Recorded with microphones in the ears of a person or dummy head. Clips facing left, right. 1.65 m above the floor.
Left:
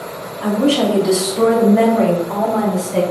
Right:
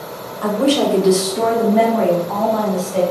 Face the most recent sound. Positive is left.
turn(degrees=25)  # may be behind; listen again after turning